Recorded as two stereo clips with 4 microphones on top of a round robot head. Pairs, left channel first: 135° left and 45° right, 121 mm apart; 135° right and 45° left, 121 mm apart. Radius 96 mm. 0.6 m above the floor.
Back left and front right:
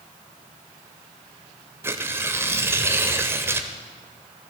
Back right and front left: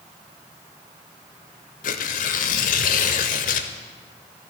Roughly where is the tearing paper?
Behind right.